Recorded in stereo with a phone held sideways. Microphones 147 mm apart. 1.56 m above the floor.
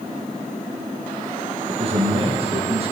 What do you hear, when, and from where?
1.7 s a man speaking: 40° right (ahead or behind), 1.6 m